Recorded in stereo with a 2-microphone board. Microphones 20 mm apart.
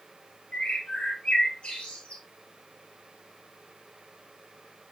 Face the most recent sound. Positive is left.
turn(degrees=70)  # may be behind; listen again after turning